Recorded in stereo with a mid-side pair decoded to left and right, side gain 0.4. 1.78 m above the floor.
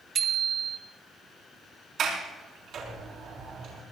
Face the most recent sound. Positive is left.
turn(degrees=-65)